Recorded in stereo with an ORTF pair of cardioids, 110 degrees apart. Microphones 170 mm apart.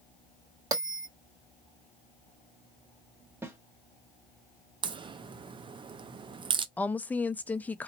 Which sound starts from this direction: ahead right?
A crack, at 4.8 s.